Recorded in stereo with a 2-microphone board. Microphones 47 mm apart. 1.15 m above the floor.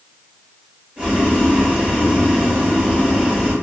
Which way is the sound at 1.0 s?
25° right (ahead or behind).